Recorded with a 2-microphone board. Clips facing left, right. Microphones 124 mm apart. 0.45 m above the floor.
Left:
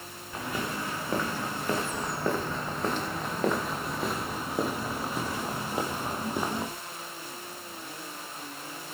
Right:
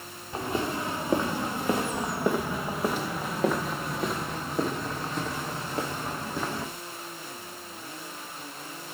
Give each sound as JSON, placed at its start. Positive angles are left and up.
{"t": 0.3, "sound": "footsteps", "side_deg": -30, "distance_m": 4.5}